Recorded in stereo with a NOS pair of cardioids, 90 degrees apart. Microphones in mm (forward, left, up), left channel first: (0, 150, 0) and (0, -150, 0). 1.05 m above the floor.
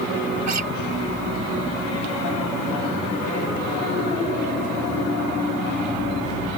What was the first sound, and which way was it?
A guitar, 65° right.